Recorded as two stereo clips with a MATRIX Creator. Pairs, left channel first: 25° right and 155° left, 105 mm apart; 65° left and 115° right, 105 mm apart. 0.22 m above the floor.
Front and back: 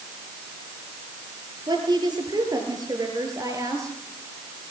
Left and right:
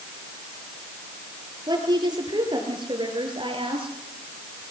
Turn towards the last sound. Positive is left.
turn(degrees=-145)